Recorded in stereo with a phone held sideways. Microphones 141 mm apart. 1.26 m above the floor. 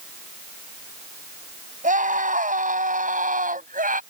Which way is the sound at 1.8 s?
65° right (ahead or behind).